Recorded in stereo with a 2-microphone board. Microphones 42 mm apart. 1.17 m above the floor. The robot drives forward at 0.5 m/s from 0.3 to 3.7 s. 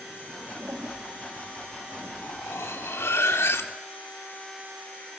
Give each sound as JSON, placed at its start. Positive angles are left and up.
{"t": 0.6, "sound": "a toilet flushing", "side_deg": -80, "distance_m": 2.5}
{"t": 2.2, "sound": "cutlery clinking", "side_deg": 85, "distance_m": 1.9}